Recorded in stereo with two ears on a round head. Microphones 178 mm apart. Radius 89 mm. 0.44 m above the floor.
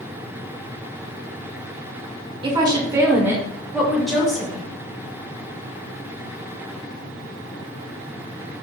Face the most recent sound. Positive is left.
turn(degrees=5)  # may be behind; listen again after turning